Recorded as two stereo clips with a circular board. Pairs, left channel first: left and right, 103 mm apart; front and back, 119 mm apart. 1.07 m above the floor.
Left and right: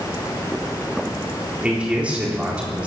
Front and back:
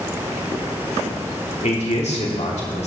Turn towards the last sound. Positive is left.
turn(degrees=-15)